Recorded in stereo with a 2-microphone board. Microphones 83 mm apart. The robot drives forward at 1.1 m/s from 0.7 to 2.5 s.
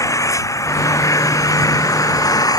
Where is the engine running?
40° left (ahead or behind); by 2.6 s 50° left (ahead or behind).